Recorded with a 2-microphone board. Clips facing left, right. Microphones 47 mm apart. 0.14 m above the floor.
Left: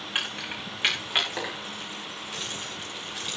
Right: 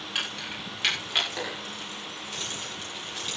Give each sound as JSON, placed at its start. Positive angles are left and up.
{"t": 0.1, "sound": "keys jangling", "side_deg": 25, "distance_m": 9.0}